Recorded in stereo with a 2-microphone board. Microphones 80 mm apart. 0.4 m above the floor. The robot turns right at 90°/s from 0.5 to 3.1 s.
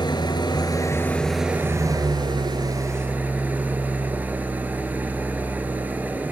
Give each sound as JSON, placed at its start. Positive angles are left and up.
{"t": 0.0, "sound": "an engine running", "azimuth_deg": 105, "distance_m": 2.0}